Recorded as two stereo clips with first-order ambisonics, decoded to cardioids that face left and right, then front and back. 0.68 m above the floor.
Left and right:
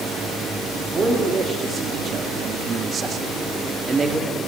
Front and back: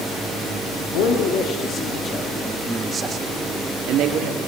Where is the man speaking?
25° right, 1.5 m; by 4.4 s 170° right, 1.7 m.